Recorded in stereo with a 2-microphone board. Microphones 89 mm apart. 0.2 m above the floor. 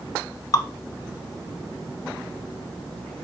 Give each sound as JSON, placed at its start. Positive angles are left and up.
{"t": 0.5, "sound": "dripping", "side_deg": 55, "distance_m": 0.6}